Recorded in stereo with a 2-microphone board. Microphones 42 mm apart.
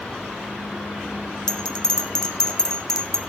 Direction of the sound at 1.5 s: 15° left (ahead or behind).